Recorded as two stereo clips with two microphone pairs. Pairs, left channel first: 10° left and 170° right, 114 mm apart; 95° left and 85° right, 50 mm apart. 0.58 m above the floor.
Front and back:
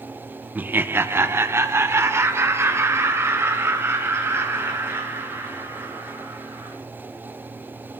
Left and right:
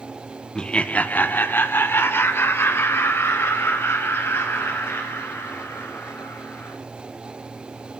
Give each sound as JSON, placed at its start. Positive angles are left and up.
{"t": 0.6, "sound": "laughter", "azimuth_deg": 155, "distance_m": 0.6}